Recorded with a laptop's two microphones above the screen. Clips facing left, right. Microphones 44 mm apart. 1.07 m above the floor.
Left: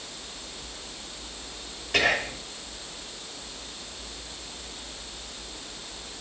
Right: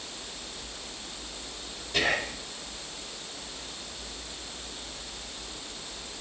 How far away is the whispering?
About 6 m.